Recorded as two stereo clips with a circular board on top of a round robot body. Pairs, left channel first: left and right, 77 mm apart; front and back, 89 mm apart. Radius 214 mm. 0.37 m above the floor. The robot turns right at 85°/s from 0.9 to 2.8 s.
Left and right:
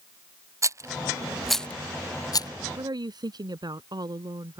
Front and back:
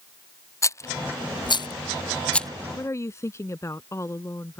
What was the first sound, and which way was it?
A rattle, 50° right.